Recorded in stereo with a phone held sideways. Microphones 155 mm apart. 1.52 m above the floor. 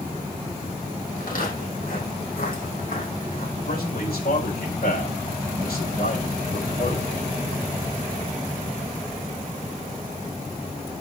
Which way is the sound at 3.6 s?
80° left.